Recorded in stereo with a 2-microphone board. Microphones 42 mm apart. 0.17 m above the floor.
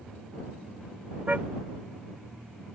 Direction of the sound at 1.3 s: 35° right (ahead or behind).